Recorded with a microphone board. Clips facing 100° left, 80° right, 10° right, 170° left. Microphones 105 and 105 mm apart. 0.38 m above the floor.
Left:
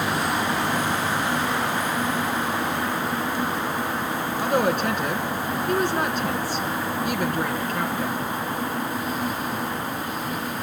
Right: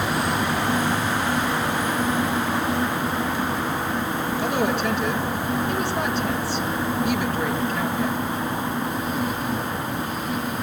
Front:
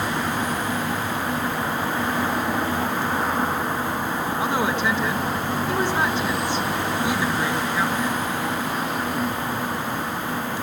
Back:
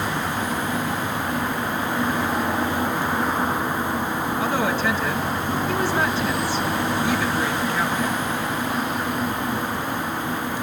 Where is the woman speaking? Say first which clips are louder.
Left 2 dB, even; 60° left, 3.5 m.